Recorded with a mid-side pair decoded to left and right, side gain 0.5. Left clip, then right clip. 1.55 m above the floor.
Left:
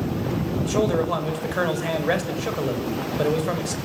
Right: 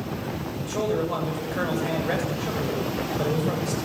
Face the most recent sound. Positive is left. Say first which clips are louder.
# left 3 dB
turn(degrees=35)